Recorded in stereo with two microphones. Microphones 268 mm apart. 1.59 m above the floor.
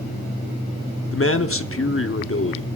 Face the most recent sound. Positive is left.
turn(degrees=55)  # may be behind; listen again after turning